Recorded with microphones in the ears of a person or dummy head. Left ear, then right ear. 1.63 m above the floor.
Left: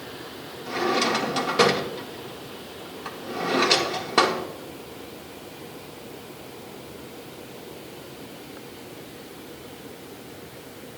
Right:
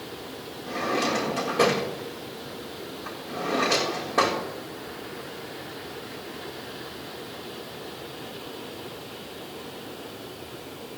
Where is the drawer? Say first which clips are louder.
Left 3 dB; 65° left (ahead or behind), 1.5 m.